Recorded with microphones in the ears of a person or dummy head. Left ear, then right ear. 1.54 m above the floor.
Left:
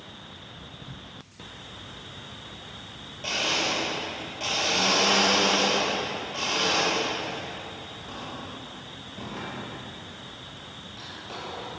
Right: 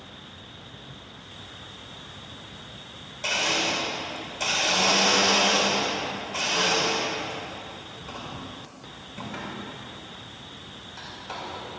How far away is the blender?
About 4.5 m.